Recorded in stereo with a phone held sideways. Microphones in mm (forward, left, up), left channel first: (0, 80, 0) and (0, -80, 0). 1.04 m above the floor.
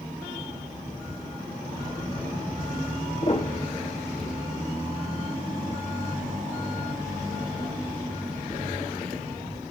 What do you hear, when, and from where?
3.2 s a piano: 40° left (ahead or behind), 2.5 m